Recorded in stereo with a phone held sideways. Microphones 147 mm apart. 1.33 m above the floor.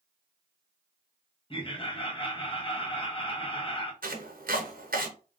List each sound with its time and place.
1.5 s laughter: 35° left (ahead or behind), 1.2 m
4.0 s chopping: 80° right, 0.9 m